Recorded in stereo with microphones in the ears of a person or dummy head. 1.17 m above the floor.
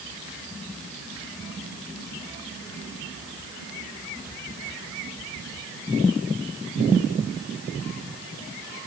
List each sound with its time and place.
Only background noise.